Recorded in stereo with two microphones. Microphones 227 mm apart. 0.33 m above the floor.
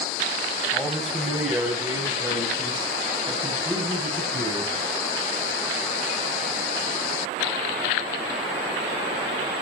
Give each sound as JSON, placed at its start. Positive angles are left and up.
{"t": 0.7, "sound": "a man speaking", "side_deg": 5, "distance_m": 2.0}